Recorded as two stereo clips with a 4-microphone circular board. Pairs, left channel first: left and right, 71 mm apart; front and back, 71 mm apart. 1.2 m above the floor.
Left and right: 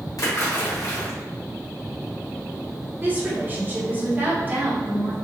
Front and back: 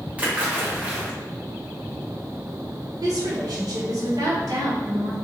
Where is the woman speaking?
155° right, 1.2 m.